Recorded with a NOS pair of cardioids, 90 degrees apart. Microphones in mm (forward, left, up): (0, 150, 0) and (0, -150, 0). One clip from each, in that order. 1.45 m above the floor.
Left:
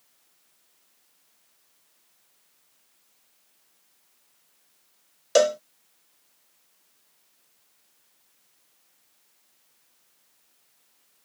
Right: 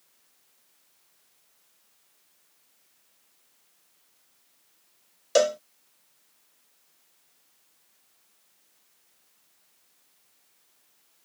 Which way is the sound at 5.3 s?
10° left.